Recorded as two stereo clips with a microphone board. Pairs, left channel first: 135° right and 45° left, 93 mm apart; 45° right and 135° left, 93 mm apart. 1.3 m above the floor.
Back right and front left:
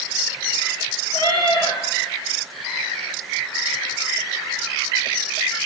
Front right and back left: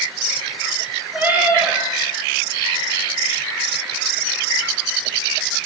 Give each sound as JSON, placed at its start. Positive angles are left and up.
{"t": 1.1, "sound": "a cat meowing", "azimuth_deg": -150, "distance_m": 7.0}